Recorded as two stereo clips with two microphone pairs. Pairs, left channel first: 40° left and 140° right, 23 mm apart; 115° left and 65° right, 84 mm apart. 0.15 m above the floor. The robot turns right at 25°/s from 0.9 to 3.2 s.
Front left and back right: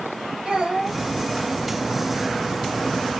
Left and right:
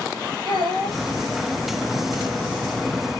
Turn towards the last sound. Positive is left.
turn(degrees=-25)